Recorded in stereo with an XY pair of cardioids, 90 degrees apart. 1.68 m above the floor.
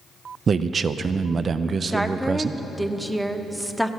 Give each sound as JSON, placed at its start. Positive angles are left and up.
{"t": 0.5, "sound": "a man speaking", "azimuth_deg": -50, "distance_m": 0.6}
{"t": 1.9, "sound": "a woman speaking", "azimuth_deg": -5, "distance_m": 0.9}